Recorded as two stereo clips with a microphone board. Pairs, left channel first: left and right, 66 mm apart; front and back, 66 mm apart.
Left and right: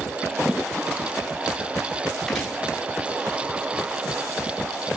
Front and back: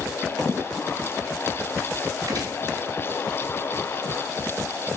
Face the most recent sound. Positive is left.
turn(degrees=175)